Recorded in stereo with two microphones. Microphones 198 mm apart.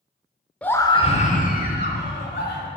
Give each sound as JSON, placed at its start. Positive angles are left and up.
{"t": 0.6, "sound": "a scream", "side_deg": 5, "distance_m": 0.8}